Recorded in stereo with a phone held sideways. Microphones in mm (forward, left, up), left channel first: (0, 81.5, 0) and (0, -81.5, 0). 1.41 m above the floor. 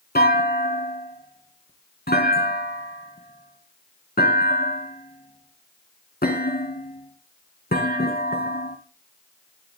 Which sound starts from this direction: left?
A clunk, at 0.1 s.